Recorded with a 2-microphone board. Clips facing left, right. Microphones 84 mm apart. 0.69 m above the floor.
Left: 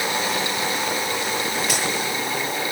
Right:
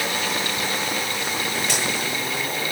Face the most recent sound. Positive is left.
turn(degrees=5)  # may be behind; listen again after turning